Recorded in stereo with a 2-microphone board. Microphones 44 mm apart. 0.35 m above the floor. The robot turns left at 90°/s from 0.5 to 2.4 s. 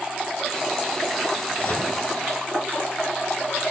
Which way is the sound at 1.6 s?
145° left.